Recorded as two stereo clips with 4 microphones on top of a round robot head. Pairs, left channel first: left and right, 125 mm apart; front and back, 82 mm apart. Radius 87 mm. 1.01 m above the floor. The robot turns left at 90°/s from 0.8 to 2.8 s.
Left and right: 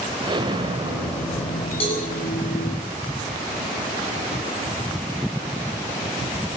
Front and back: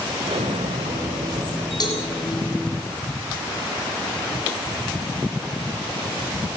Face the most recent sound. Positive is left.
turn(degrees=-55)